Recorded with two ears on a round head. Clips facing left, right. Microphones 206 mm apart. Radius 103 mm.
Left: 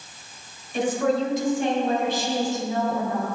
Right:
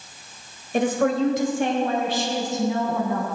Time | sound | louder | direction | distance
0.7 | a woman speaking | right 2 dB | 45° right (ahead or behind) | 2.0 m